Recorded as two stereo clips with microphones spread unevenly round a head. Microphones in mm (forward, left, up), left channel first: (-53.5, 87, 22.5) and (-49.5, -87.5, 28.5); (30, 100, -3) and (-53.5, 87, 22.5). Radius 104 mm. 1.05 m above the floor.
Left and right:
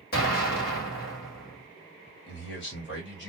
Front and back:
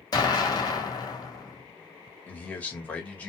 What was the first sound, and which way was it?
An explosion, 50° left.